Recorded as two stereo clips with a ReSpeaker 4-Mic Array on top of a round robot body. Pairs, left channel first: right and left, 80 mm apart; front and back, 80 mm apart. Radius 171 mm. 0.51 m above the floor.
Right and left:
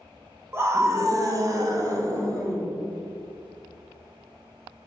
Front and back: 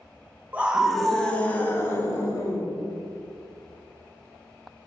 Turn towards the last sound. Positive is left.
turn(degrees=45)